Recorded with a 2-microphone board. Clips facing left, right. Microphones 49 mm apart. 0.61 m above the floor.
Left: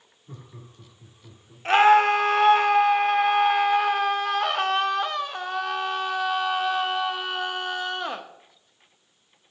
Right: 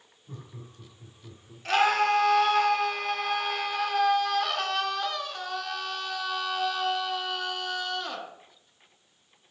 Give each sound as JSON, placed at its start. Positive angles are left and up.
{"t": 0.3, "sound": "laughter", "side_deg": 15, "distance_m": 1.4}
{"t": 1.6, "sound": "a scream", "side_deg": 30, "distance_m": 0.6}